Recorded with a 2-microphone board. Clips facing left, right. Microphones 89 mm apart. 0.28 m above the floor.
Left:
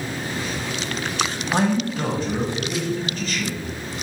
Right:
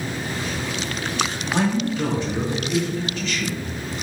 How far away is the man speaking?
About 1.2 m.